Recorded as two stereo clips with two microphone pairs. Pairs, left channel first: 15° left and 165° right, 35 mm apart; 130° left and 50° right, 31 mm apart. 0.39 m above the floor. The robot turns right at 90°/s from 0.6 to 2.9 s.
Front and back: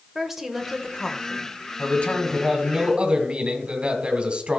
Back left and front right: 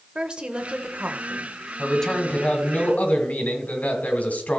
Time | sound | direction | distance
0.1 | a woman speaking | 95° right | 1.2 m
1.8 | a man speaking | 40° left | 2 m